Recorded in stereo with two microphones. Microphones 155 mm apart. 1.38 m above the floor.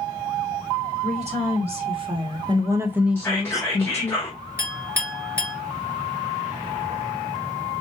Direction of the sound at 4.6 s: 15° right (ahead or behind).